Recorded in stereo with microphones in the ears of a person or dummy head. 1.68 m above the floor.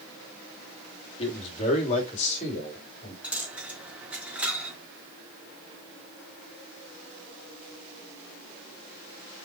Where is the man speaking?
30° left (ahead or behind), 3 m; by 3.1 s 40° left (ahead or behind), 4 m.